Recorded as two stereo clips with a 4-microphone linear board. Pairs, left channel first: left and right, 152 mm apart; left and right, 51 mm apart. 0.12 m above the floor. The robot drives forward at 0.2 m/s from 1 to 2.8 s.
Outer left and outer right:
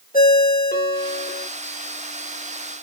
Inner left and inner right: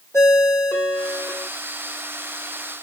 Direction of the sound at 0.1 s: 65° left (ahead or behind).